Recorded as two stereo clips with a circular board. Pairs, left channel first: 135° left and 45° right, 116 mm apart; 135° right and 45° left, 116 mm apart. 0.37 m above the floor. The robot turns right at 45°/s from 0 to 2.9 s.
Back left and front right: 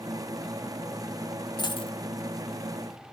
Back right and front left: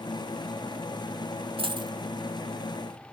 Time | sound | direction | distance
1.6 | a dropped coin | 85° left | 0.7 m